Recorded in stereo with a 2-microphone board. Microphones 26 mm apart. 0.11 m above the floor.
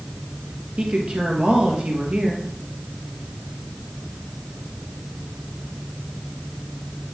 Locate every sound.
0.8 s a woman speaking: 45° right (ahead or behind), 2 m